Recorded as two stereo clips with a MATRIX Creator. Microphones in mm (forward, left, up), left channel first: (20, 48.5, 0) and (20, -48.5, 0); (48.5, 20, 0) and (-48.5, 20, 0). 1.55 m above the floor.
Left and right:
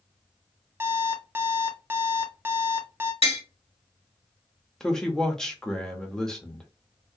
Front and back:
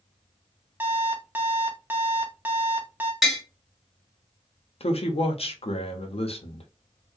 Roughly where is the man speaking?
Ahead.